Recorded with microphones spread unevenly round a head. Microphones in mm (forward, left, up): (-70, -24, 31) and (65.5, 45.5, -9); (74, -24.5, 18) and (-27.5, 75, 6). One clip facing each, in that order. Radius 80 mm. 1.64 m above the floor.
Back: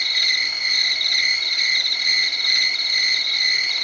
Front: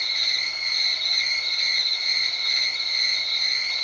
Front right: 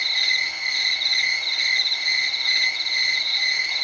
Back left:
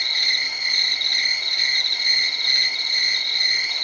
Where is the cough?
No cough in this recording.